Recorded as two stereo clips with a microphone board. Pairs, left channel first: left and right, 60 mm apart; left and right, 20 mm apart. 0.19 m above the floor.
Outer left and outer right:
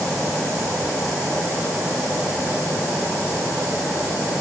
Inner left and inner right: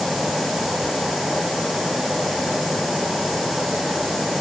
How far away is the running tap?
I don't hear a running tap.